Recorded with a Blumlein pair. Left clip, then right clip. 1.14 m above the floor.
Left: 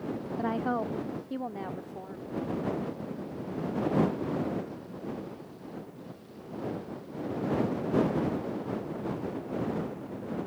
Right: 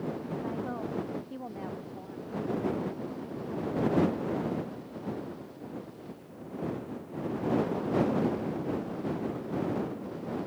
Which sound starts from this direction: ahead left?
A woman speaking, at 0.4 s.